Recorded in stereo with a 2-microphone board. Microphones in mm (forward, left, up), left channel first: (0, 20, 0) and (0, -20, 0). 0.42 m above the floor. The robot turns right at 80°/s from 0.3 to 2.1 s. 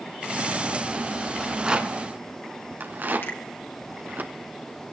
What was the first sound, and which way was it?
A rattle, 5° left (ahead or behind).